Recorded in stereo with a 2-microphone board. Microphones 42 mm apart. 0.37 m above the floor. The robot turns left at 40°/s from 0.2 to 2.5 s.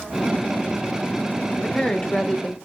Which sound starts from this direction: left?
A woman speaking, at 1.6 s.